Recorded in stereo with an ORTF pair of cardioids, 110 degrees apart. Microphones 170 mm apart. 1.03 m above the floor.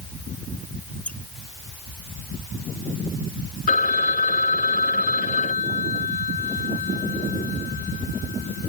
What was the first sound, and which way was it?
A squeak, 10° left.